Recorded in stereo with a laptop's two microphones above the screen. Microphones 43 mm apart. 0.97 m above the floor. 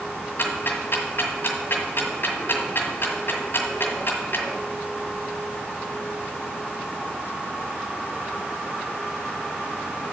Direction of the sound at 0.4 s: 55° left (ahead or behind).